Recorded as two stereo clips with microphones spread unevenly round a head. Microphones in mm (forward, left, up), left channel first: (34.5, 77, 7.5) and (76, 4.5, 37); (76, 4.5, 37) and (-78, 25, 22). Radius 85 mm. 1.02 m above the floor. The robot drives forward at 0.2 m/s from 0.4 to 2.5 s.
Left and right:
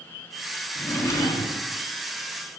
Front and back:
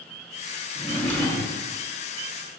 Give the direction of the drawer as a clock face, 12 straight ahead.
11 o'clock.